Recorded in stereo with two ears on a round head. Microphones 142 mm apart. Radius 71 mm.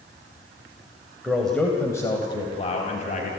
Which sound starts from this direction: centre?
A man speaking, at 1.2 s.